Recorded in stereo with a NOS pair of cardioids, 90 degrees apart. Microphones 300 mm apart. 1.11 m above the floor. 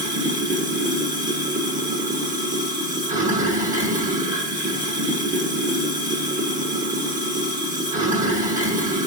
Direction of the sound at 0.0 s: 25° right.